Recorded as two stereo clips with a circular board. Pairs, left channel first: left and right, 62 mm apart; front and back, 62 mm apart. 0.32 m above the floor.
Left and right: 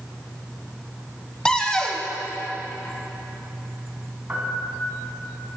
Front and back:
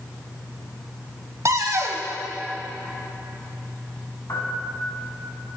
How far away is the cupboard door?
About 0.7 m.